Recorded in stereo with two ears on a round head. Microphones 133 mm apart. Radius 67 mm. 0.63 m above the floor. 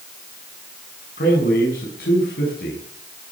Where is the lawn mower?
I don't hear a lawn mower.